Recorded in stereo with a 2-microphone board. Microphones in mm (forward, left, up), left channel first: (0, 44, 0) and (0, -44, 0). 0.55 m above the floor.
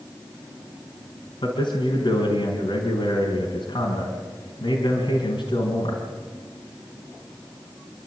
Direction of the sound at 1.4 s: 80° left.